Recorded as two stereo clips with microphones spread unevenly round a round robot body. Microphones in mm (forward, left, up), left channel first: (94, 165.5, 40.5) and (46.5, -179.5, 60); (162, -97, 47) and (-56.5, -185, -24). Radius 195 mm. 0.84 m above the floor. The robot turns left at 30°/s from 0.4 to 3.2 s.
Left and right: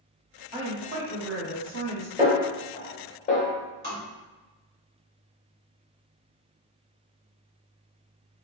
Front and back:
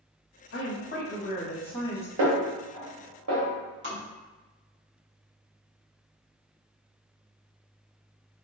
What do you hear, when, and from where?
0.5 s a woman speaking: 20° right, 1.4 m; by 2.1 s 65° right, 1.4 m
2.2 s a snare drum: straight behind, 0.9 m; by 3.5 s 150° left, 0.9 m
3.8 s tapping: 160° right, 1.7 m